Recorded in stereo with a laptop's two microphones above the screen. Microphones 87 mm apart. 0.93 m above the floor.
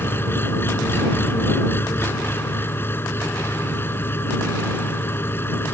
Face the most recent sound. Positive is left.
turn(degrees=25)  # may be behind; listen again after turning